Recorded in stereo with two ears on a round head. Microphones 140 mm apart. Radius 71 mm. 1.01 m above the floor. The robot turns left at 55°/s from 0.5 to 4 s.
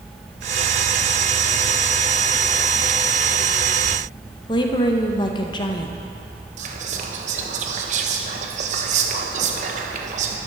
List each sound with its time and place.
4.5 s a woman speaking: 25° left (ahead or behind), 0.7 m
6.6 s whispering: 50° right (ahead or behind), 1.0 m